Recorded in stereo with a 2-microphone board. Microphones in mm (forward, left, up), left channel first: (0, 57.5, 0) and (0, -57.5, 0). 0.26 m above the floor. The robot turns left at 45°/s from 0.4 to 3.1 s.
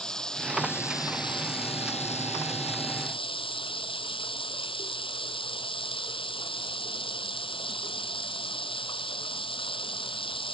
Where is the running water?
175° left; by 10.5 s 50° left.